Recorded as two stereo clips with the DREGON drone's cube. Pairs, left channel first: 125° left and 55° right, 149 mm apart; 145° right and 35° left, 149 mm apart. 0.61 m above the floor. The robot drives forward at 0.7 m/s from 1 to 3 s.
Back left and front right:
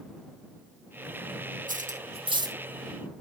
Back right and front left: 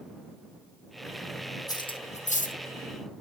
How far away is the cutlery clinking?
About 0.8 m.